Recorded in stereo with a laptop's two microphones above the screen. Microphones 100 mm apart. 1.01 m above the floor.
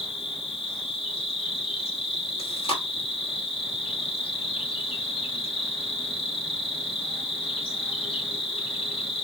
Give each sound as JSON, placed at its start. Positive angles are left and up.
{"t": 0.0, "sound": "an insect", "side_deg": 70, "distance_m": 2.0}
{"t": 2.4, "sound": "chewing", "side_deg": 75, "distance_m": 1.9}